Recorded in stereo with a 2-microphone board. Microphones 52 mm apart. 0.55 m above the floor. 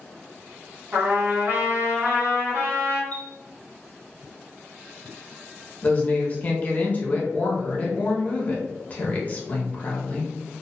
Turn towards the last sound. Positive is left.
turn(degrees=30)  # may be behind; listen again after turning